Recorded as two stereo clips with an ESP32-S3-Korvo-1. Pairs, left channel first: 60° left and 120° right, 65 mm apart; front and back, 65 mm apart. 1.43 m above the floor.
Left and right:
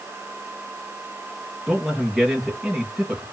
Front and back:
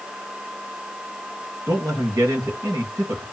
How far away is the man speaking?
About 2.5 m.